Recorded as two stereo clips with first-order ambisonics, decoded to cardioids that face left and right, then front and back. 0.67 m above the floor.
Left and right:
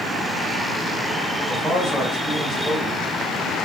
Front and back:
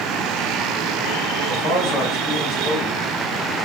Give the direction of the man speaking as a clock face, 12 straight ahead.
12 o'clock.